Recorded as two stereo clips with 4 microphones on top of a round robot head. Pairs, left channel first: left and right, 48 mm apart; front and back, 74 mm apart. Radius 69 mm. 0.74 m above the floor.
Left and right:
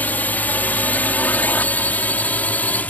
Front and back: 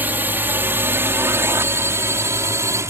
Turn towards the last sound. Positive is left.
turn(degrees=140)